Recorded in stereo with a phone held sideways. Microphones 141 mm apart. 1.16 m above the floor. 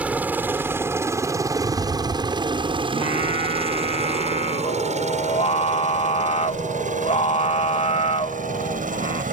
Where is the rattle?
60° right (ahead or behind).